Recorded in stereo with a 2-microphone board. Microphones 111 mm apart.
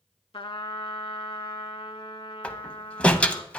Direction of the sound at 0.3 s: 55° left (ahead or behind).